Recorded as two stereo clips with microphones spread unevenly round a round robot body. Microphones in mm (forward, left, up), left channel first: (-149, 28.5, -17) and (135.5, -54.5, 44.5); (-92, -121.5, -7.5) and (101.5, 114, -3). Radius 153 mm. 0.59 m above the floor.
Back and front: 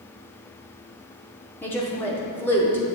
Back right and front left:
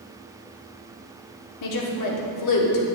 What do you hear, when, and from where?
1.6 s a woman speaking: 120° right, 1.1 m